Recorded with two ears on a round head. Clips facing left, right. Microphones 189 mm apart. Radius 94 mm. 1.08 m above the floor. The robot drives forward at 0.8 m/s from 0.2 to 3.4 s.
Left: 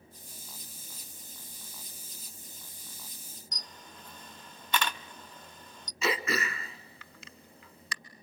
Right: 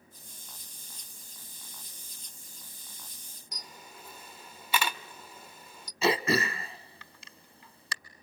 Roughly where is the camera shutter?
Centre.